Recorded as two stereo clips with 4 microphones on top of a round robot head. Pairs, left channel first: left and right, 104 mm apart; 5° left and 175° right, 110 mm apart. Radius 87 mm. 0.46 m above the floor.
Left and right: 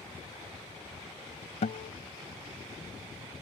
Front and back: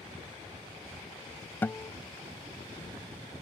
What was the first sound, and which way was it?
A guitar, 80° left.